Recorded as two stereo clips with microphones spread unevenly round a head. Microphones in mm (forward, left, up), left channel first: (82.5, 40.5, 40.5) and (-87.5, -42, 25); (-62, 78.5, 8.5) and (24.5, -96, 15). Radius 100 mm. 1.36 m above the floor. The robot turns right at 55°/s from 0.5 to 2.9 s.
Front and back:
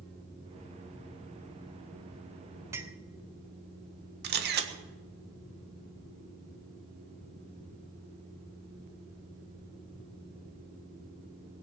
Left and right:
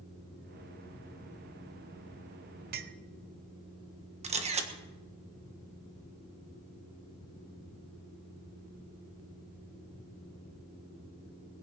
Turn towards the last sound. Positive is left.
turn(degrees=-120)